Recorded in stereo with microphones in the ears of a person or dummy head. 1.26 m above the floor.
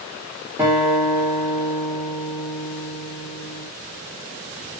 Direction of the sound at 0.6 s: 15° right (ahead or behind).